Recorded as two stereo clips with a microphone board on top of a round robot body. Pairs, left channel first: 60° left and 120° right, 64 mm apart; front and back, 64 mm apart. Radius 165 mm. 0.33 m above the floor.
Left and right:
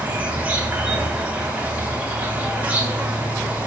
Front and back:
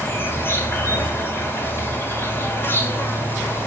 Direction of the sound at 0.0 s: 55° right.